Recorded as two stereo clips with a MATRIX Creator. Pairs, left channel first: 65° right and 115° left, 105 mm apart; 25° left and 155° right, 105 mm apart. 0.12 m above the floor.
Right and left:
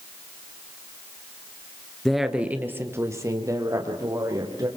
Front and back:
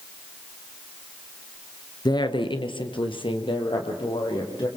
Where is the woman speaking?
20° left, 1.4 m; by 4.7 s 60° left, 4.5 m.